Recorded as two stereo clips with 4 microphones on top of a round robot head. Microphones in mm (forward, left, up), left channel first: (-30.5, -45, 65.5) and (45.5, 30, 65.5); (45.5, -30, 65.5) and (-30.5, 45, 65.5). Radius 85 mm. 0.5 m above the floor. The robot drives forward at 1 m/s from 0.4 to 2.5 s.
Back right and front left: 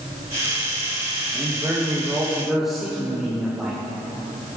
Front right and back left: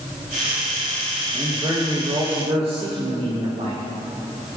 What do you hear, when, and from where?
1.3 s a man speaking: 95° left, 1.9 m; by 3.8 s 130° left, 2.5 m